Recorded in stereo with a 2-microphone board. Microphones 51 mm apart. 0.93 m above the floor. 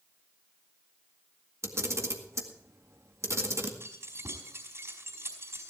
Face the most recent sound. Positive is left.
turn(degrees=-55)  # may be behind; listen again after turning